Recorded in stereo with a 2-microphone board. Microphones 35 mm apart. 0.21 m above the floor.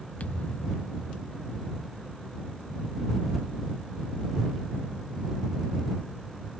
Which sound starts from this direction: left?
A thud, at 0.2 s.